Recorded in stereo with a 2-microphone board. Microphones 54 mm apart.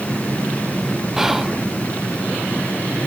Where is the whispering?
5° right (ahead or behind), 0.6 m.